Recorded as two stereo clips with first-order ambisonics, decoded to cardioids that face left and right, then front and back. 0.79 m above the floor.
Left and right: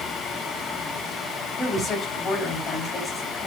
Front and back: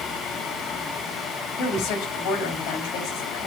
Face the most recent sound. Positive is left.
turn(degrees=20)